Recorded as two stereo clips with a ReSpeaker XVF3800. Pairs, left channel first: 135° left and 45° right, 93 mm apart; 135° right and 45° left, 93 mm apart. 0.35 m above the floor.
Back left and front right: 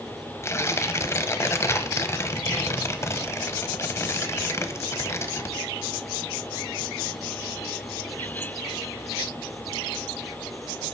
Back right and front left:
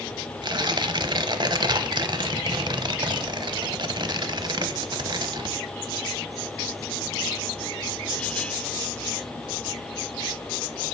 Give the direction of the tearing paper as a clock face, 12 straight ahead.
9 o'clock.